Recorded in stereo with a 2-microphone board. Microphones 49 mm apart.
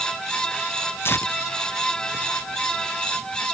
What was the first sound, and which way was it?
Tearing paper, 50° left (ahead or behind).